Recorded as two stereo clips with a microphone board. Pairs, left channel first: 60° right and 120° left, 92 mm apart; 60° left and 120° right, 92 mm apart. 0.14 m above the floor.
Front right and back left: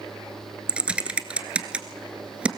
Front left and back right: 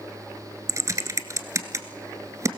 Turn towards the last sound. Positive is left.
turn(degrees=-165)